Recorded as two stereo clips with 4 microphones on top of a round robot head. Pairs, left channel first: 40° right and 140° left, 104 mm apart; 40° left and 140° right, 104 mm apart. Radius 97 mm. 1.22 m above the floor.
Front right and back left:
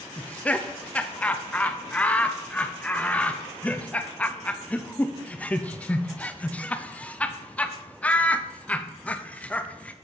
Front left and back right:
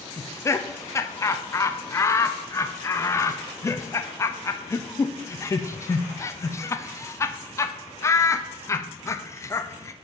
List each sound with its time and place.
0.2 s laughter: 25° left, 0.5 m